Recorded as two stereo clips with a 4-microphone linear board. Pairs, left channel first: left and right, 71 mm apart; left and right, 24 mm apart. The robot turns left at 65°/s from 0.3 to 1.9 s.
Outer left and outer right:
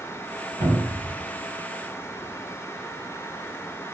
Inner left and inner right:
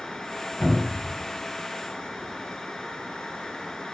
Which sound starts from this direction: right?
A cupboard door, at 0.6 s.